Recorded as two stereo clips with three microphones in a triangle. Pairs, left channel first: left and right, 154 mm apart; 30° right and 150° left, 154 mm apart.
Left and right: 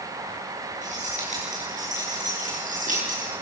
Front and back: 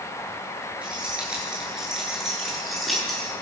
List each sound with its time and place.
0.8 s keys jangling: 125° right, 10 m; by 3.3 s 120° right, 7 m